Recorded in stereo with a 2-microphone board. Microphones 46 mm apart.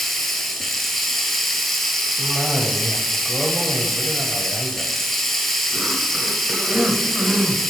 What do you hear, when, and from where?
0.0 s running water: centre (ahead or behind), 0.9 m
2.2 s a cough: 10° right (ahead or behind), 1.1 m